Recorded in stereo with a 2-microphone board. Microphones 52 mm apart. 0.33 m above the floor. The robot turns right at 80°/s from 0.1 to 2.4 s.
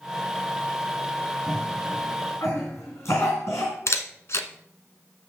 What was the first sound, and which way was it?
A cough, 5° left (ahead or behind).